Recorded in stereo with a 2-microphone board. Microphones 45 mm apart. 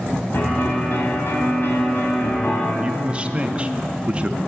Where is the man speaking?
25° right (ahead or behind), 0.6 m.